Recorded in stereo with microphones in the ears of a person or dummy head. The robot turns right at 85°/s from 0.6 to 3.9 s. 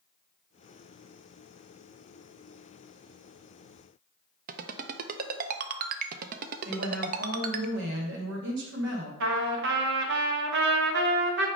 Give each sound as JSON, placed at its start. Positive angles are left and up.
{"t": 4.5, "sound": "a ringtone", "side_deg": -45, "distance_m": 0.5}
{"t": 6.7, "sound": "a woman speaking", "side_deg": -70, "distance_m": 1.9}
{"t": 9.2, "sound": "a trumpet", "side_deg": -70, "distance_m": 1.0}